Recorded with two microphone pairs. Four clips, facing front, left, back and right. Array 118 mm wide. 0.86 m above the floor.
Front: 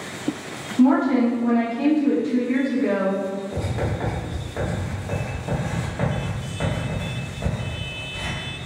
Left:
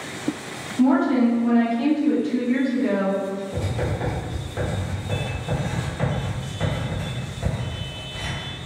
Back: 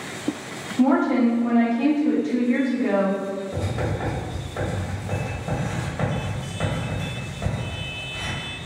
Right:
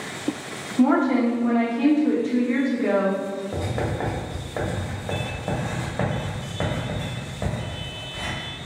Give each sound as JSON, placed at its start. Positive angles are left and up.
{"t": 0.8, "sound": "a woman speaking", "azimuth_deg": -85, "distance_m": 0.9}
{"t": 3.5, "sound": "writing", "azimuth_deg": -85, "distance_m": 1.2}